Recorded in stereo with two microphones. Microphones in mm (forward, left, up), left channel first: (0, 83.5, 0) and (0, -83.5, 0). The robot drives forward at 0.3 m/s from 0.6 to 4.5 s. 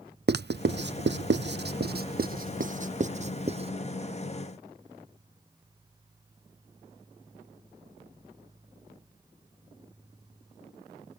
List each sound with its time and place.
0.3 s writing: 70° right (ahead or behind); by 3.7 s 35° right (ahead or behind)